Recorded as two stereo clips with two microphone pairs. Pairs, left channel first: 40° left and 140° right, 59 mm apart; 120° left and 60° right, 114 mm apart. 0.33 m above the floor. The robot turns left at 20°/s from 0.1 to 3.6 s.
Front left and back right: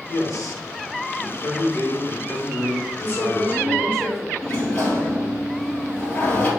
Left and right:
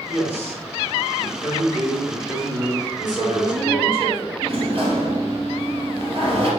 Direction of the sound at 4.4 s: 25° right.